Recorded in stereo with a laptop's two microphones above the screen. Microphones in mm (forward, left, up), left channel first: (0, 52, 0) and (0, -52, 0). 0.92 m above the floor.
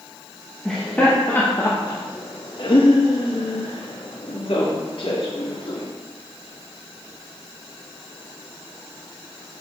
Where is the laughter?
5° left (ahead or behind), 1.2 m; by 5.9 s 60° left (ahead or behind), 2.5 m.